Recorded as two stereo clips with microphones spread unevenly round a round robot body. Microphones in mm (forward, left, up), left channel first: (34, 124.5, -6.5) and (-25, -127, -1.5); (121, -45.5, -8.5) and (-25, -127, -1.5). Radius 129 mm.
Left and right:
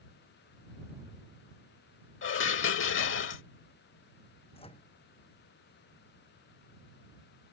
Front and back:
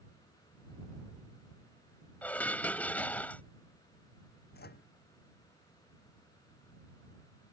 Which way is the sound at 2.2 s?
110° left.